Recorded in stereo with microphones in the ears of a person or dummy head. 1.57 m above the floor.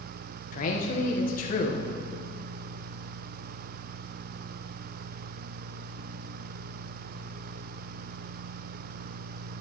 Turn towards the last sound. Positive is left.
turn(degrees=45)  # may be behind; listen again after turning